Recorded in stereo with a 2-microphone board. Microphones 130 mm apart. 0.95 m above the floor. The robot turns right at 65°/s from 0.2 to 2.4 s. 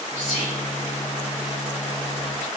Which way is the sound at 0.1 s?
80° left.